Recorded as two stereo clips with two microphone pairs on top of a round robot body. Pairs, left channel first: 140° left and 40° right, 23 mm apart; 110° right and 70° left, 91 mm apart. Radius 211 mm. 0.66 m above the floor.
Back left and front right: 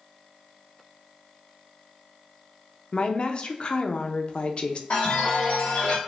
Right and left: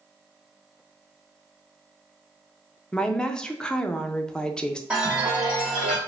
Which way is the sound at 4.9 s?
150° left.